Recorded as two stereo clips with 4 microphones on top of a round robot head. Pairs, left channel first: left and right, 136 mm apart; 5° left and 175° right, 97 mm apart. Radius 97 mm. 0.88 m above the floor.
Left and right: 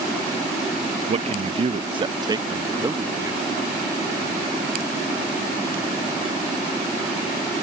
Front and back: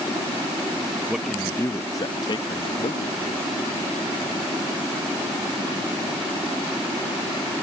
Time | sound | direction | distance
1.1 | a man speaking | 95° right | ?